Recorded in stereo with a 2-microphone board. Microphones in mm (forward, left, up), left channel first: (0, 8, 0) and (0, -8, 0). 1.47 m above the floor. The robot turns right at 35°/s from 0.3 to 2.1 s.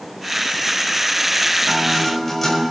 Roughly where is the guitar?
Centre.